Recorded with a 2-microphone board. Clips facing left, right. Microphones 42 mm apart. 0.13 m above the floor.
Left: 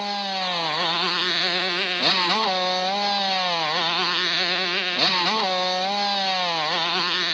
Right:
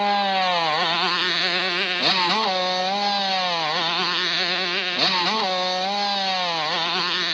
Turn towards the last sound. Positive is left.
turn(degrees=-5)  # may be behind; listen again after turning